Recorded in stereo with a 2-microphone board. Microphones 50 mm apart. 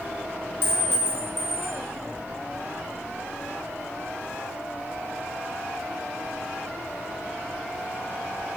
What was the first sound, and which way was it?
A clink, 45° left (ahead or behind).